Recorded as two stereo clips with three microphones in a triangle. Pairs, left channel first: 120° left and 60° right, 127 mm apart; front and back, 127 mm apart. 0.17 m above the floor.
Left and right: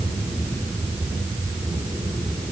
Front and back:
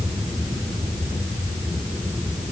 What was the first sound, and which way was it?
Only background noise.